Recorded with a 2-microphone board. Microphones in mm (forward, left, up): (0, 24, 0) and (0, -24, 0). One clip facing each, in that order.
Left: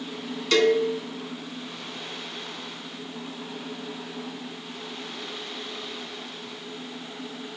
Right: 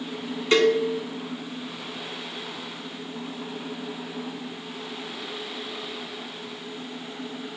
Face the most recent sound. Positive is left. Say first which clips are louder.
# right 1 dB
turn(degrees=-25)  # may be behind; listen again after turning